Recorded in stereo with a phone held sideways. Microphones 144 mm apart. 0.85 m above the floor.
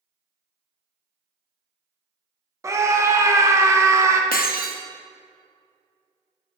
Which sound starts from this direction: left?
Breaking glass, at 4.3 s.